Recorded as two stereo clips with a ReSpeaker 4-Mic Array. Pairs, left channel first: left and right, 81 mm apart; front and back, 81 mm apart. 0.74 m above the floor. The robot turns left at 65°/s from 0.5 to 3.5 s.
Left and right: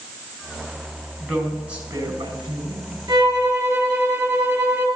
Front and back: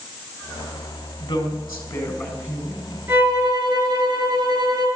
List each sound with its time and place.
1.2 s a woman speaking: 15° left, 5 m; by 3.0 s 100° right, 5 m
3.1 s a violin: 115° right, 5.5 m; by 4.9 s 140° right, 5.5 m